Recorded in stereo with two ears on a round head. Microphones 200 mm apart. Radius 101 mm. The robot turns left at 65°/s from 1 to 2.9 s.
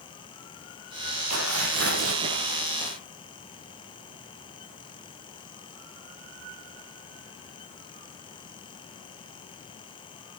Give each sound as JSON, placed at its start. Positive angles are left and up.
{"t": 1.3, "sound": "tearing paper", "azimuth_deg": -90, "distance_m": 8.0}